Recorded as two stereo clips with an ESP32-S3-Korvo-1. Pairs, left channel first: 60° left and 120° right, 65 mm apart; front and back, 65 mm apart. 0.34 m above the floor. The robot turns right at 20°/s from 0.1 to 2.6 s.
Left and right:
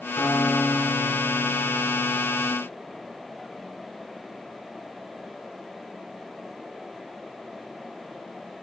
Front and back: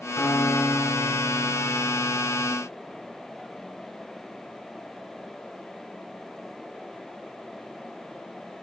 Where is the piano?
45° left, 1.2 m; by 2.5 s 90° left, 1.2 m.